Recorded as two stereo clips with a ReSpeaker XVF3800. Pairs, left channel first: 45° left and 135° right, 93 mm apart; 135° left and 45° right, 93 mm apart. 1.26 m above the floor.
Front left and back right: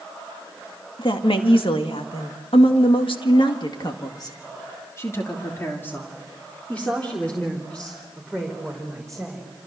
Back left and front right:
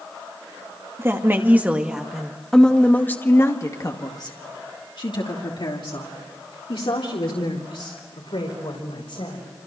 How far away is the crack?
I don't hear a crack.